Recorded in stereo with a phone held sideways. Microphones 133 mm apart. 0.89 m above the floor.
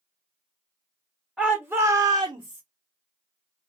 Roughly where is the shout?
Centre.